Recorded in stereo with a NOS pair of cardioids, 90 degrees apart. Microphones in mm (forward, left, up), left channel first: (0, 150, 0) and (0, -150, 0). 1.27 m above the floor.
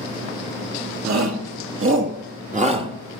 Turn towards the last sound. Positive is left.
turn(degrees=-15)